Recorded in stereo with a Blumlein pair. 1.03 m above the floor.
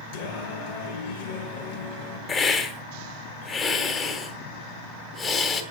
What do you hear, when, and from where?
0.1 s singing: 50° left, 3.5 m
2.3 s a hiss: 20° left, 2 m